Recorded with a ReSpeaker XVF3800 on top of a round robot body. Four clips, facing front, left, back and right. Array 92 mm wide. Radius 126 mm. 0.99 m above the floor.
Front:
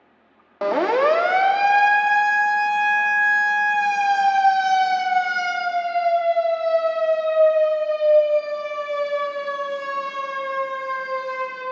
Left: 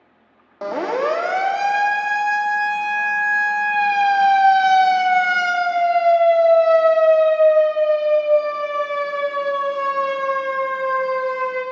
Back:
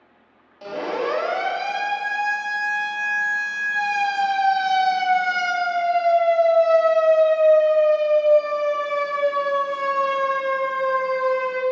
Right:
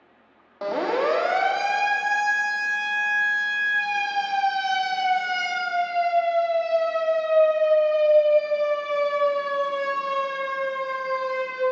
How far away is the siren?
About 3 m.